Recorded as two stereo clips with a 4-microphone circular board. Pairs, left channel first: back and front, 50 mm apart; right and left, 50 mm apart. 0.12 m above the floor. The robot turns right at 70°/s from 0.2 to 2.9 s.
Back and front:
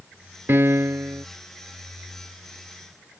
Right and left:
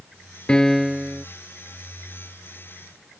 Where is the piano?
25° right; by 1.2 s 30° left.